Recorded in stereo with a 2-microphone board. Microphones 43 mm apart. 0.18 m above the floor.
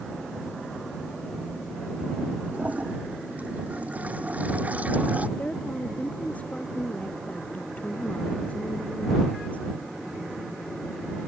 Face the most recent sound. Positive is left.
turn(degrees=40)  # may be behind; listen again after turning